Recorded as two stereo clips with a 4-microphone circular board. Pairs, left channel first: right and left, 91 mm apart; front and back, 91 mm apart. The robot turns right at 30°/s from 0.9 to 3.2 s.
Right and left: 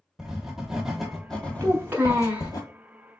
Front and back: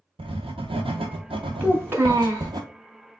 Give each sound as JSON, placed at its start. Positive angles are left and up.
{"t": 0.2, "sound": "writing", "azimuth_deg": 175, "distance_m": 0.8}
{"t": 1.6, "sound": "a child speaking", "azimuth_deg": 125, "distance_m": 0.7}